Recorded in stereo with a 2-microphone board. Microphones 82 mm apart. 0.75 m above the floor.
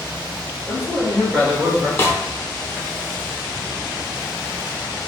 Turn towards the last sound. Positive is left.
turn(degrees=30)  # may be behind; listen again after turning